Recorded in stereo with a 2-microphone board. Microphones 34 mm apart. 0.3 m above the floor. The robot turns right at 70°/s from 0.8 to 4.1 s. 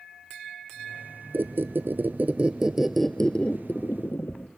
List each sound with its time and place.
1.3 s a squeak: 115° right, 0.6 m; by 4.5 s 80° left, 0.6 m